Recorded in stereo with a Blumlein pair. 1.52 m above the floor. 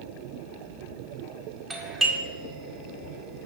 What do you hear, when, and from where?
1.7 s a doorbell: 20° right, 1.9 m